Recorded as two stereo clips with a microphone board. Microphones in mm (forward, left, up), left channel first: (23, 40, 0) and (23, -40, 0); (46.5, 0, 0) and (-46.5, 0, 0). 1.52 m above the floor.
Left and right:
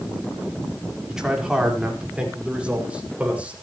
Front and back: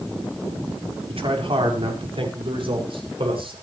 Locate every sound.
1.1 s a man speaking: 170° right, 5 m; by 3.5 s 165° right, 7 m